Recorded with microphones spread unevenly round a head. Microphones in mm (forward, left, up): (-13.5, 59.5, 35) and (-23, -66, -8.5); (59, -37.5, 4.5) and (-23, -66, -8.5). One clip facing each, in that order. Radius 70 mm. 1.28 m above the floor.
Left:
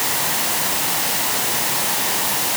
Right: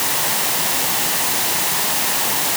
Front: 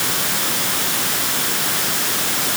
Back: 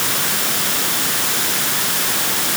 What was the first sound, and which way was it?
Only background noise.